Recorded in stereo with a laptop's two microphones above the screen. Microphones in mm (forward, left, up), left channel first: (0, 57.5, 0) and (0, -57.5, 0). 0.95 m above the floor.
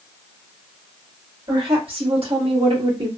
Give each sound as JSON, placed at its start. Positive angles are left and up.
{"t": 1.5, "sound": "a woman speaking", "side_deg": -45, "distance_m": 1.3}